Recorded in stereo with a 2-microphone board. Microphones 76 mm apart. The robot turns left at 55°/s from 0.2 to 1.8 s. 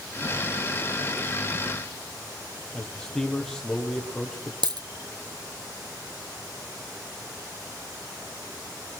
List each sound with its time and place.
2.7 s a man speaking: 10° left (ahead or behind), 4.5 m
4.6 s a dropped coin: 70° right (ahead or behind), 1.0 m